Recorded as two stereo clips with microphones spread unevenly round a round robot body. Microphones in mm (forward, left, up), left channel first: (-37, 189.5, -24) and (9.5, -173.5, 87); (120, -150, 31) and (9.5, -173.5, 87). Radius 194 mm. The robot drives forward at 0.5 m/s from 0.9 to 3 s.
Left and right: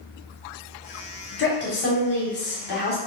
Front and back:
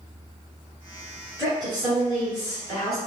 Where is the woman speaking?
110° left, 1.5 m; by 3.0 s 140° left, 1.8 m.